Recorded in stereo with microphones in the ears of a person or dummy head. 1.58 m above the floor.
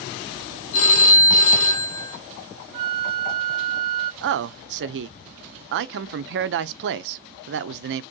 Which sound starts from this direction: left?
A phone ringing, at 0.7 s.